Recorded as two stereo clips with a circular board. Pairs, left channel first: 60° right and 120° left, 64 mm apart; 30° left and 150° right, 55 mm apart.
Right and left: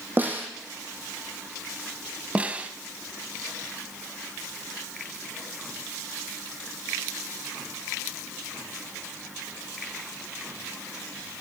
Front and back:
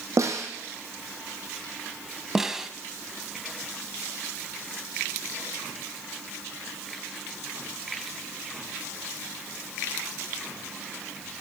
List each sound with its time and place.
0.2 s a snare drum: straight behind, 2.5 m
2.4 s a snare drum: 140° left, 0.9 m